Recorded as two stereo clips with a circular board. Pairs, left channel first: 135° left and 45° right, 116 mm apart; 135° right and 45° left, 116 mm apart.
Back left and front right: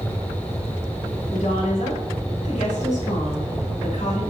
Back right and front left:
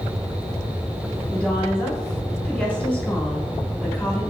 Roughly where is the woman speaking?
Behind left.